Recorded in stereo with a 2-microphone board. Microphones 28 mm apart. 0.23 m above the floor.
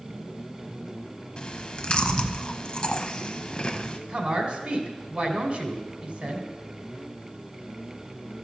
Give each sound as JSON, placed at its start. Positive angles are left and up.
{"t": 1.4, "sound": "chewing", "side_deg": 35, "distance_m": 0.6}
{"t": 4.1, "sound": "a woman speaking", "side_deg": -45, "distance_m": 1.7}